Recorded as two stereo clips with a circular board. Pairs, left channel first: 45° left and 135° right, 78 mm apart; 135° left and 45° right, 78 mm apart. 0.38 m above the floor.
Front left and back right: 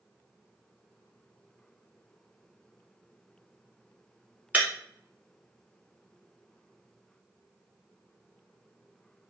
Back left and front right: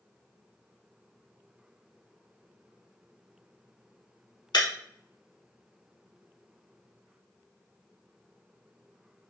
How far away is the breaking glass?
About 0.9 m.